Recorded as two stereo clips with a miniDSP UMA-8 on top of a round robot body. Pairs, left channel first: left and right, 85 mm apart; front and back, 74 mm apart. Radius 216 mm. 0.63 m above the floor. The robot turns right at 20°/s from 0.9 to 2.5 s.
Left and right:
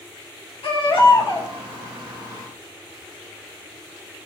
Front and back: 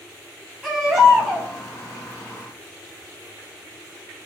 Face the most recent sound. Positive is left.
turn(degrees=125)